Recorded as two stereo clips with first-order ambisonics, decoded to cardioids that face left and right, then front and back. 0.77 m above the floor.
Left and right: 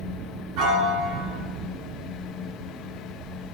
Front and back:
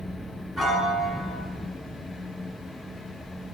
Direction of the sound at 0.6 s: 85° right.